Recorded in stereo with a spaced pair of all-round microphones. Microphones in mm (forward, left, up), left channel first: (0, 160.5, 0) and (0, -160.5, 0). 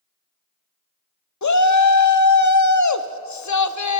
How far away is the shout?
About 0.5 m.